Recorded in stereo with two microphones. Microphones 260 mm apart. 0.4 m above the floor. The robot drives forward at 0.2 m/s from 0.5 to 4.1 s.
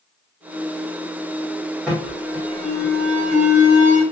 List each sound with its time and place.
1.9 s an alarm: centre (ahead or behind), 1.8 m